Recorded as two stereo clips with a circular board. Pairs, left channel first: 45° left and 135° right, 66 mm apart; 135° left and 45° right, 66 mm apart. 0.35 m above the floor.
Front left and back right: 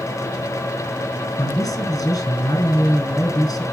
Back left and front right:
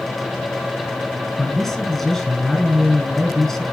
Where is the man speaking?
50° left, 4 m.